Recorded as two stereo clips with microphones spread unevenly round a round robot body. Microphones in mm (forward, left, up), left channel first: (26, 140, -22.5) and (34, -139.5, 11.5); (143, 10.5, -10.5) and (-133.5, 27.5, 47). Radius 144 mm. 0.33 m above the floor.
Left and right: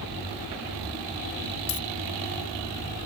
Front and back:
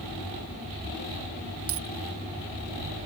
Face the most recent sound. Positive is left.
turn(degrees=135)